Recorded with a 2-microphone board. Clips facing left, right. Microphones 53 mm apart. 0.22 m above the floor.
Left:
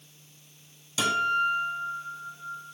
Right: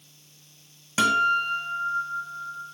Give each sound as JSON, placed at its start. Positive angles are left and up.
{"t": 1.0, "sound": "a guitar", "side_deg": -50, "distance_m": 0.8}